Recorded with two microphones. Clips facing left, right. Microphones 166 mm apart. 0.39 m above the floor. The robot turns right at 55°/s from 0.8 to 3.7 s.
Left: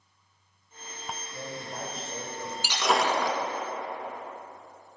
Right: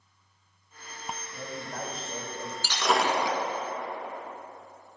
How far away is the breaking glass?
About 1.4 m.